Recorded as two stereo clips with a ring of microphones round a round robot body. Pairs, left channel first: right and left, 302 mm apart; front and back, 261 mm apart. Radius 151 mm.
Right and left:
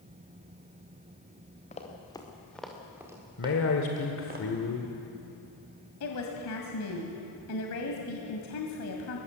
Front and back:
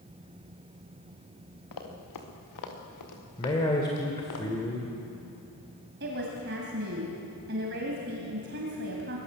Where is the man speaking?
70° right, 1.7 m.